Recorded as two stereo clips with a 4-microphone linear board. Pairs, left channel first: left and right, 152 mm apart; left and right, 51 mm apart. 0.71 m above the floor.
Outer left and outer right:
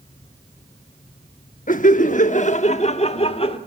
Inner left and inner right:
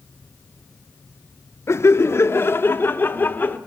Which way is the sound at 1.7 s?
60° left (ahead or behind).